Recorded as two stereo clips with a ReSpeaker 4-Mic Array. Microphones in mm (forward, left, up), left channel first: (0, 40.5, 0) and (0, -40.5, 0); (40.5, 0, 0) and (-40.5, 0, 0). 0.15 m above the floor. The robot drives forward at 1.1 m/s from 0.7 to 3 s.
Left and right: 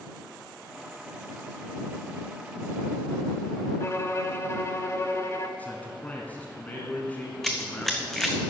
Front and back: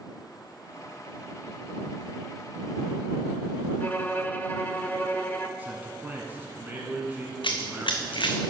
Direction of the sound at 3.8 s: 55° left.